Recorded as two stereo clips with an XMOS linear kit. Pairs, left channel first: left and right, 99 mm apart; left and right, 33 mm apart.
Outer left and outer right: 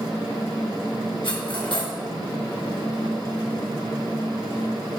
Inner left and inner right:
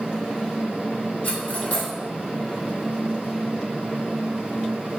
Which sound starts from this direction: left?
Cutlery clinking, at 1.2 s.